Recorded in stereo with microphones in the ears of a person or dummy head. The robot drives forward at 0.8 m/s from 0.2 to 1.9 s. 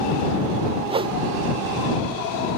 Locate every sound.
0.9 s a whoosh: 20° right (ahead or behind); by 1.2 s 15° right (ahead or behind)